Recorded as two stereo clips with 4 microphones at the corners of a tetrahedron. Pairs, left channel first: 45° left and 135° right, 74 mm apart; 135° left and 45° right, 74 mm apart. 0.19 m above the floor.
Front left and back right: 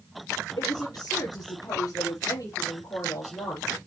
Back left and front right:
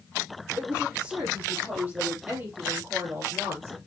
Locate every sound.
0.6 s a woman speaking: 25° left, 4 m; by 3.8 s straight ahead, 4.5 m